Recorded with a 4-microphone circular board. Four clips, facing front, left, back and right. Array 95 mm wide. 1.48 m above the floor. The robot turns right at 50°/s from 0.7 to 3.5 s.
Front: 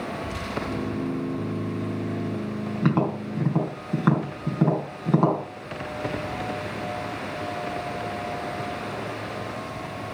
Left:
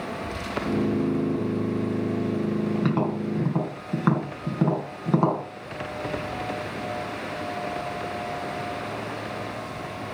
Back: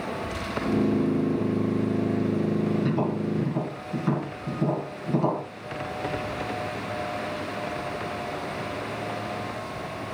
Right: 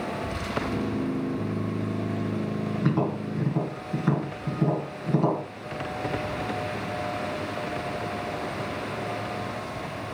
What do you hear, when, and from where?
2.8 s tapping: 15° left, 3.5 m; by 5.4 s 50° left, 3.5 m